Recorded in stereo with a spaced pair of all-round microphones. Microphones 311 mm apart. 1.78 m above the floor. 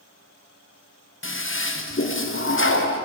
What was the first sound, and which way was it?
A toilet flushing, 40° left (ahead or behind).